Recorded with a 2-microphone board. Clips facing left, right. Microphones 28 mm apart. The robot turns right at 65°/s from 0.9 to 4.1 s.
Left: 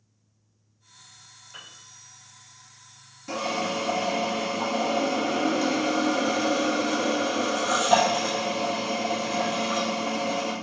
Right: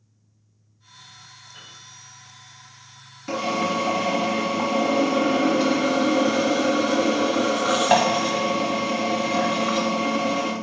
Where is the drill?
150° right, 2.5 m; by 10.5 s 95° right, 2.5 m.